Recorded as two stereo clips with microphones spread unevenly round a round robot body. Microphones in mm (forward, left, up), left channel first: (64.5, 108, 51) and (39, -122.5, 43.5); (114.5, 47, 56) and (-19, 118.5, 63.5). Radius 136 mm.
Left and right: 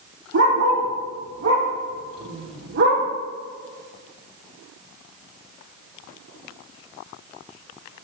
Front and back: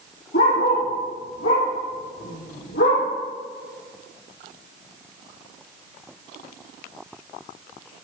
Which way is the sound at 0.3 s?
60° right.